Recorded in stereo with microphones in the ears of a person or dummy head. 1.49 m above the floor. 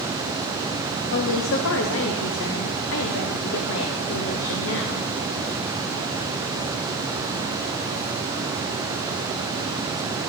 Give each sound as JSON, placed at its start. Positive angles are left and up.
{"t": 1.1, "sound": "a woman speaking", "side_deg": 70, "distance_m": 0.8}